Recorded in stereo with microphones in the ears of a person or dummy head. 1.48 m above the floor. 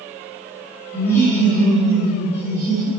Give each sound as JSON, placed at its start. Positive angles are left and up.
{"t": 0.9, "sound": "laughter", "side_deg": 20, "distance_m": 1.5}